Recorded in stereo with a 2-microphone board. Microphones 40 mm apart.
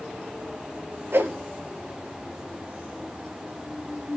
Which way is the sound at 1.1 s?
80° right.